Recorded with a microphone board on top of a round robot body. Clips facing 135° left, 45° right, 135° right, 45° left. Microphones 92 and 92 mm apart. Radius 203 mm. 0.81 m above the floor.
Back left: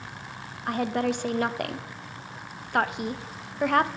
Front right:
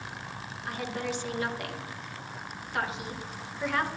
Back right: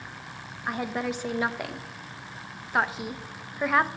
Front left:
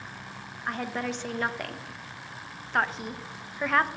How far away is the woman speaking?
About 0.7 m.